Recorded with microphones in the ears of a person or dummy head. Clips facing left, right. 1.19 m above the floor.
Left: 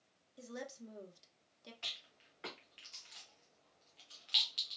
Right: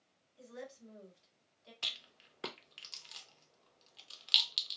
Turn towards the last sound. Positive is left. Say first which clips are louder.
# right 2 dB
turn(degrees=-60)  # may be behind; listen again after turning